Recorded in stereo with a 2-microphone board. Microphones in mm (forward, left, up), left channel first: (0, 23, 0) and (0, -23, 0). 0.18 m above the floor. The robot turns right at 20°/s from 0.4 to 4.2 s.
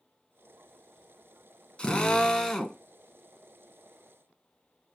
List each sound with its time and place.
1.8 s a drill: 20° left (ahead or behind), 0.9 m; by 2.8 s 5° left (ahead or behind), 0.9 m